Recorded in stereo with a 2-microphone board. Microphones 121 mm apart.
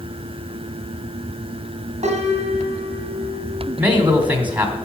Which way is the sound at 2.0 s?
60° right (ahead or behind).